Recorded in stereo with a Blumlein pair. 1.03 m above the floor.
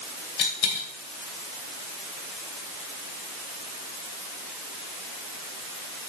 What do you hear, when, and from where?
0.4 s a dropped coin: 45° left, 2.5 m